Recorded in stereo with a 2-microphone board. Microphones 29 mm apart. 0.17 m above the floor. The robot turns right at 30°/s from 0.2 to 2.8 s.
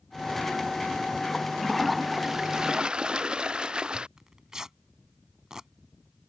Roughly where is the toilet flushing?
Behind.